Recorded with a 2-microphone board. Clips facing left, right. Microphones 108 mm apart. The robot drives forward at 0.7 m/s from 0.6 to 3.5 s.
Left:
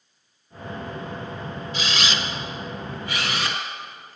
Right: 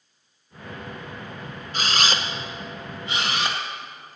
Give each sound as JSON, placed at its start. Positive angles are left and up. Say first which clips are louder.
{"t": 1.7, "sound": "a camera shutter", "louder": "right 3 dB", "side_deg": -45, "distance_m": 0.8}